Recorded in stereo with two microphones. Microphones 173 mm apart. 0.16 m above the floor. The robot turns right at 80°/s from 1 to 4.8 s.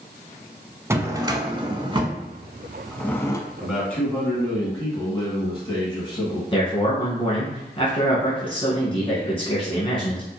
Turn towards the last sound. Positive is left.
turn(degrees=30)  # may be behind; listen again after turning